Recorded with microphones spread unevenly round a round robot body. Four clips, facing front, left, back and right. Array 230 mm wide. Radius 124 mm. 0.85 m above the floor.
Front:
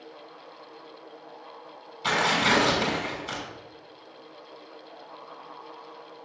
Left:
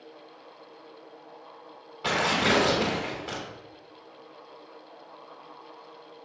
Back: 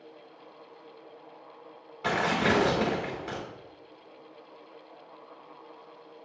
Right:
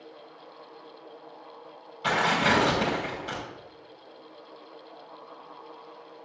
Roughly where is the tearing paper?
Behind left.